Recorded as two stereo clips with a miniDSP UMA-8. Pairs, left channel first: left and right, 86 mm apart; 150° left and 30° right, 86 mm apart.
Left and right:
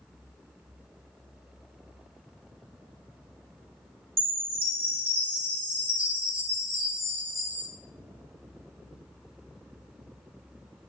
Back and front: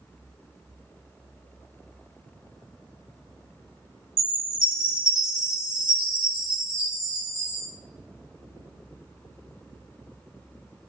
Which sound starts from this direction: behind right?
A chime, at 4.2 s.